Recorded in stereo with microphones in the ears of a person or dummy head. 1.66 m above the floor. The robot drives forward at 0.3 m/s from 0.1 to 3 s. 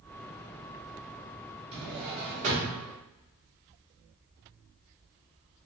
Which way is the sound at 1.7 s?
25° right (ahead or behind).